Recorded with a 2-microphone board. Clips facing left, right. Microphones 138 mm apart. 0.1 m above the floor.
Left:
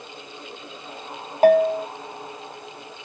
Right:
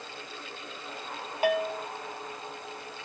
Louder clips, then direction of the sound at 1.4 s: Left 12 dB; 45° left (ahead or behind).